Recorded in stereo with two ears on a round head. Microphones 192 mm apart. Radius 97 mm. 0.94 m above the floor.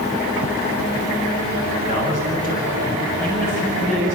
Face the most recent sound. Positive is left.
turn(degrees=40)  # may be behind; listen again after turning